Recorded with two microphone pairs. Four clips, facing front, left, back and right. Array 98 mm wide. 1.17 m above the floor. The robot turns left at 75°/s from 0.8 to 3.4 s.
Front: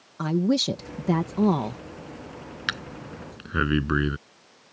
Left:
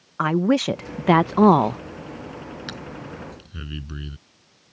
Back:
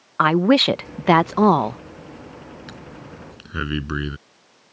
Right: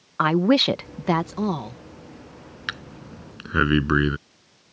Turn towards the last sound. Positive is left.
turn(degrees=-80)